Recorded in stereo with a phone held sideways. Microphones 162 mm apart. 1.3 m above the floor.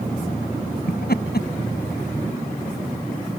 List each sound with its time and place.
0.9 s laughter: 75° left (ahead or behind)